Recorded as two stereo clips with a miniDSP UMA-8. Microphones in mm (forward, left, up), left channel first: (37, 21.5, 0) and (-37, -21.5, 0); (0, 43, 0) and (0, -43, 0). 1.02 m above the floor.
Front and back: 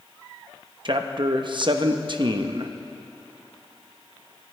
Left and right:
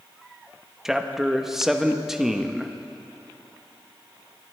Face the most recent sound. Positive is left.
turn(degrees=-175)